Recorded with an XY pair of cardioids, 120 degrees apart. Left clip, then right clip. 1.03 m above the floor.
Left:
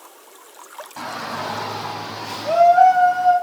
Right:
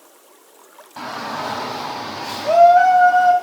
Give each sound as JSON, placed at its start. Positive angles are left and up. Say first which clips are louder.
{"t": 1.0, "sound": "a shout", "louder": "right 2 dB", "azimuth_deg": -5, "distance_m": 2.0}